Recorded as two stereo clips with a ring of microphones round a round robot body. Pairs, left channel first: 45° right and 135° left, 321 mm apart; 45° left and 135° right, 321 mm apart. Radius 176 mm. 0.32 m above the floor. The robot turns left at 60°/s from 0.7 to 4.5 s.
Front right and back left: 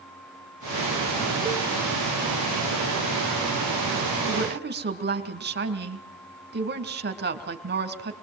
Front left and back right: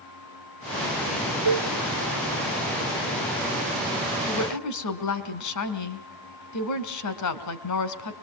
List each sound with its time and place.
1.4 s a cowbell: 150° right, 1.7 m; by 1.7 s 160° right, 1.7 m
4.3 s a woman speaking: 90° left, 3 m; by 8.1 s 75° left, 3 m